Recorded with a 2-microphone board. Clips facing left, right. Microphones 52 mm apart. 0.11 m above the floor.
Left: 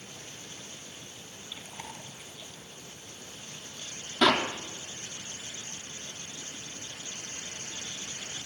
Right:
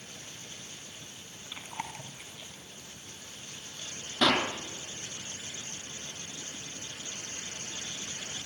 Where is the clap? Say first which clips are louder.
Left 2 dB; 5° left (ahead or behind), 4.5 m.